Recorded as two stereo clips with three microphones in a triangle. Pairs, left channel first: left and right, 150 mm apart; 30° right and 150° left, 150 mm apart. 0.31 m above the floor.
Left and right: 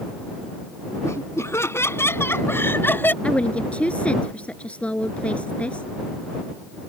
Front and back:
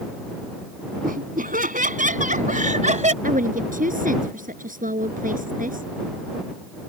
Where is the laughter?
160° left; by 3.1 s 165° left.